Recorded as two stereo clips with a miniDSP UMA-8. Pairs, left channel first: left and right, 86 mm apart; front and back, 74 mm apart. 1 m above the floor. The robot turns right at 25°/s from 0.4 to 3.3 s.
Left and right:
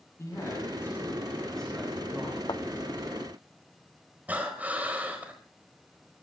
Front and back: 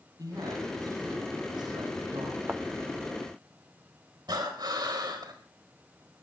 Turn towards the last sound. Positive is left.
turn(degrees=-160)